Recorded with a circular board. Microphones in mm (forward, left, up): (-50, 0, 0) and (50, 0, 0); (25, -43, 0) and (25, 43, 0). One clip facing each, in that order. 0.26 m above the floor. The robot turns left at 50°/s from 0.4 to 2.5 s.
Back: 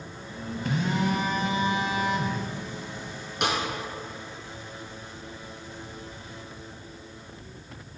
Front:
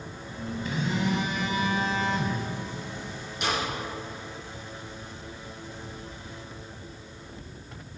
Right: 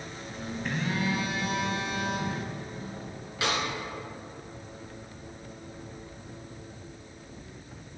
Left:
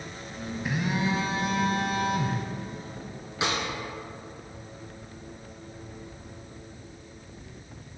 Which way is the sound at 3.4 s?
160° left.